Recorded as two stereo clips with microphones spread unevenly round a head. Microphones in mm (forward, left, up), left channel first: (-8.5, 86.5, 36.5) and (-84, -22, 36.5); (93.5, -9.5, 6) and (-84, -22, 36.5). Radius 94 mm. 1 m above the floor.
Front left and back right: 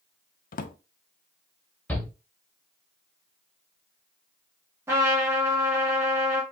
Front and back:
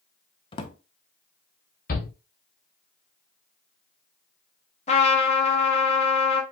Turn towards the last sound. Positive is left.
turn(degrees=-50)